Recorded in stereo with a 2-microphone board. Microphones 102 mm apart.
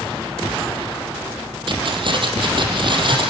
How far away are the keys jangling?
About 4.5 m.